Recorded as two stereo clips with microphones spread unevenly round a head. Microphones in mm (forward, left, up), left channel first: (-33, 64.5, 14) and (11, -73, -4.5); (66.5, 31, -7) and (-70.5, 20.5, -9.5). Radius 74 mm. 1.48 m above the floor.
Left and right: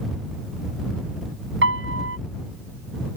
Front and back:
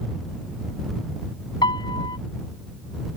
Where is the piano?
60° right.